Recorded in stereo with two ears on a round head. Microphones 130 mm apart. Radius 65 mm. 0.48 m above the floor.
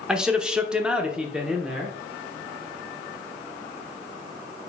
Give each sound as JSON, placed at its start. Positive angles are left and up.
{"t": 0.1, "sound": "a man speaking", "side_deg": -5, "distance_m": 1.1}